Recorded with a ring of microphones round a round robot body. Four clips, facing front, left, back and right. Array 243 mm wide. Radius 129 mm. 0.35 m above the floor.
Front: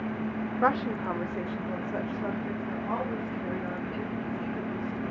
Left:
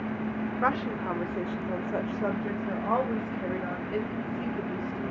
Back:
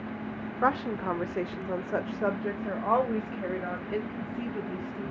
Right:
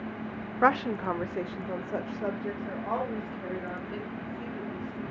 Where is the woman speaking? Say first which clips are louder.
Right 5 dB, even; 85° right, 0.8 m; by 5.1 s 155° left, 2.5 m.